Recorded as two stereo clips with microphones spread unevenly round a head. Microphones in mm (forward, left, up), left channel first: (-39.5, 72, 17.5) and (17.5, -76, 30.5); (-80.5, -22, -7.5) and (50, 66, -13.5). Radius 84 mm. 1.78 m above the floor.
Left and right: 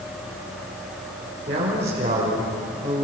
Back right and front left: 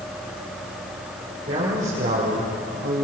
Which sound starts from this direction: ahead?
A man speaking, at 1.5 s.